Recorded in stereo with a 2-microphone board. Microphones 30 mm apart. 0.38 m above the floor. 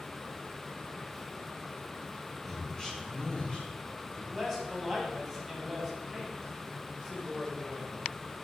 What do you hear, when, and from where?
2.4 s a man speaking: 5° left (ahead or behind), 1.8 m; by 4.2 s 30° left (ahead or behind), 4 m
4.3 s a man speaking: centre (ahead or behind), 3 m